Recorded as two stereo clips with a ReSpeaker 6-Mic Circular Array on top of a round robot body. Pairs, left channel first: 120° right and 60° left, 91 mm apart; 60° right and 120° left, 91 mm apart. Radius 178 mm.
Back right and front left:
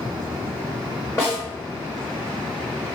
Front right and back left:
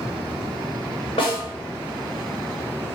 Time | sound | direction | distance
1.2 | a snare drum | 55° right | 0.5 m